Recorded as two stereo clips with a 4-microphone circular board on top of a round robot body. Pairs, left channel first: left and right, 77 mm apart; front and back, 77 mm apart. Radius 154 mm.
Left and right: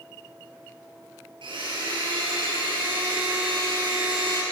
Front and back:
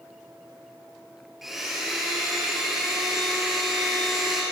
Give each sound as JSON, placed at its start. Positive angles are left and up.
{"t": 1.4, "sound": "a blender", "azimuth_deg": -95, "distance_m": 6.0}